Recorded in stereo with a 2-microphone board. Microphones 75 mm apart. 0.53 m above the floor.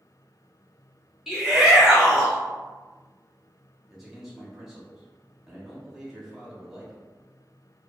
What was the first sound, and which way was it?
A shout, 5° right (ahead or behind).